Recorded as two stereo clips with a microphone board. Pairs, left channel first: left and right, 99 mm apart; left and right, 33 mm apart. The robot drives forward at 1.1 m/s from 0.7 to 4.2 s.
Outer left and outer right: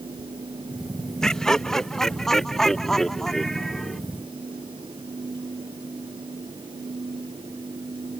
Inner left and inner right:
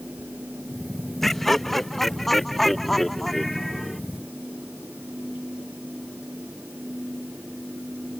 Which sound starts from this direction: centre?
Laughter, at 1.2 s.